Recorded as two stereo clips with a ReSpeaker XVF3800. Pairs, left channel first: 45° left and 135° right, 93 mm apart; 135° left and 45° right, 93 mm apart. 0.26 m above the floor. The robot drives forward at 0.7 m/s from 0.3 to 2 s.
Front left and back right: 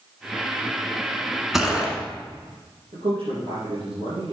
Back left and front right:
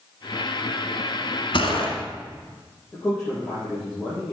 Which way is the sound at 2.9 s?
150° right.